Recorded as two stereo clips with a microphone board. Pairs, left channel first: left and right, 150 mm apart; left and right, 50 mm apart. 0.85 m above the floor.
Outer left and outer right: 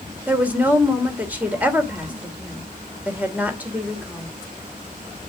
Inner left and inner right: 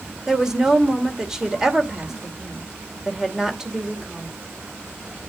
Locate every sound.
0.3 s a woman speaking: 10° right (ahead or behind), 2.5 m